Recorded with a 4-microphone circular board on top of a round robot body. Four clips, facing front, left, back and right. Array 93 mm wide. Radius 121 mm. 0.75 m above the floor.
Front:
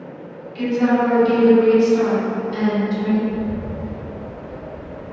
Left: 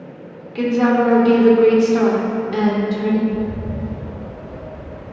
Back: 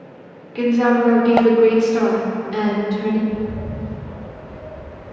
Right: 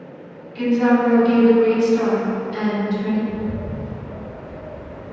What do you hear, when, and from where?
0.6 s a woman speaking: 130° left, 2.5 m
3.3 s a bird: 85° right, 1.7 m